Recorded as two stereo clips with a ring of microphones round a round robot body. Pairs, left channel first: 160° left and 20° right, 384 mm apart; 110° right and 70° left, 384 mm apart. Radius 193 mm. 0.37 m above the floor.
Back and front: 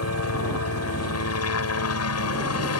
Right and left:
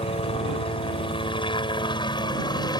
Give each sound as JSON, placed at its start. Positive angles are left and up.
{"t": 0.0, "sound": "a helicopter", "azimuth_deg": 180}